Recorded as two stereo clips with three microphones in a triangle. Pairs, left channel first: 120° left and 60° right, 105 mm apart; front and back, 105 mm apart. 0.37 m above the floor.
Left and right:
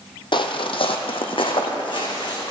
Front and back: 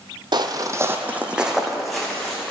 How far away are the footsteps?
About 0.7 m.